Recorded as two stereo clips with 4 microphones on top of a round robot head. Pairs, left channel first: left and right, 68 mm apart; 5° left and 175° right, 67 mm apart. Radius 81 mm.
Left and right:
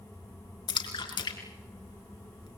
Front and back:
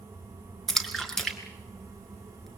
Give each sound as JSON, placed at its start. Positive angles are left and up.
{"t": 0.7, "sound": "a splash", "azimuth_deg": 90, "distance_m": 4.5}